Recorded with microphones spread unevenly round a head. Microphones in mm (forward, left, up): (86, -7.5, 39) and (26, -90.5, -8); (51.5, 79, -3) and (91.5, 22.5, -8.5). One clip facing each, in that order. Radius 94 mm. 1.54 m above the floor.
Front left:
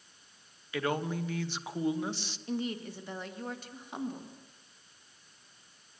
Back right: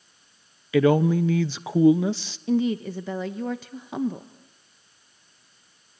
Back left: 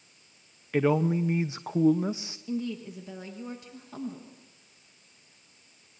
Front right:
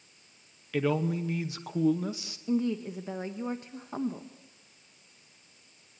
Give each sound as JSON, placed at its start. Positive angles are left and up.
{"t": 0.7, "sound": "a man speaking", "azimuth_deg": -155, "distance_m": 0.7}
{"t": 2.5, "sound": "a woman speaking", "azimuth_deg": -130, "distance_m": 1.1}